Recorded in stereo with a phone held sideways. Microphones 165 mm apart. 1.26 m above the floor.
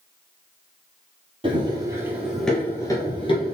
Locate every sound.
1.4 s running footsteps: 35° right (ahead or behind), 1.4 m; by 3.6 s 40° left (ahead or behind), 1.6 m